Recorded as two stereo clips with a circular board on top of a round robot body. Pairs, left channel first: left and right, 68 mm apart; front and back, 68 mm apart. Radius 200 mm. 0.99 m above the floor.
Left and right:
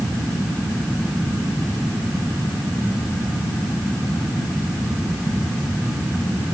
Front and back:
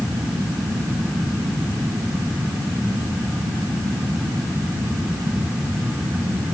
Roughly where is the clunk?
I don't hear a clunk.